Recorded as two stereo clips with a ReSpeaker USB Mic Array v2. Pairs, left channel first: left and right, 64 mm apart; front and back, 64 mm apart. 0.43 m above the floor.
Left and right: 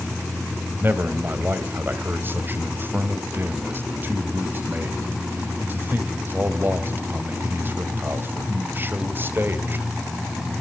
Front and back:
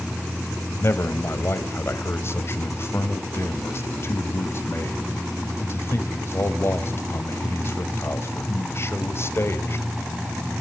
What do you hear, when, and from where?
0.8 s a man speaking: 40° right, 2 m